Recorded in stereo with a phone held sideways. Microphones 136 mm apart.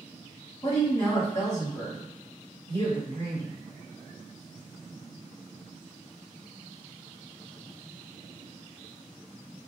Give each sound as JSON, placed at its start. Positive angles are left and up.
{"t": 0.6, "sound": "a woman speaking", "side_deg": 20, "distance_m": 1.8}